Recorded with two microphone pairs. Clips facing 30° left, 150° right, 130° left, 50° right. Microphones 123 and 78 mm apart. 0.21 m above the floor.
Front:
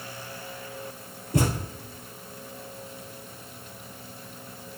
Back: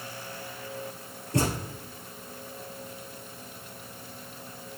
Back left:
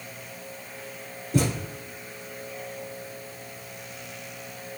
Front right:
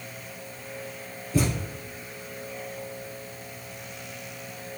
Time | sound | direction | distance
1.3 | a thud | 110° left | 2.0 m